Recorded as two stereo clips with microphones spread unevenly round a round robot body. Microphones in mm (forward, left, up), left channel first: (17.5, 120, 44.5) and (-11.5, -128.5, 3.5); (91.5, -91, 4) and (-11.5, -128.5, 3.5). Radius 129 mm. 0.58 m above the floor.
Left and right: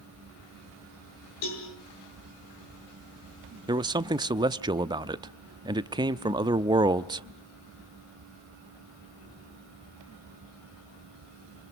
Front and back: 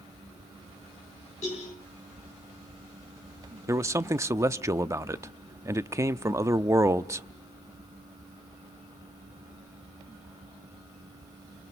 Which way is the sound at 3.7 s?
130° right.